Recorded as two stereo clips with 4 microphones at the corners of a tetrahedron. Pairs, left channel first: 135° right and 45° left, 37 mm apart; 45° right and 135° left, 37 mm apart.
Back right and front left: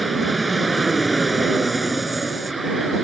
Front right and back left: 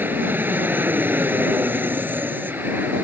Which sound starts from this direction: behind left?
An aircraft, at 0.0 s.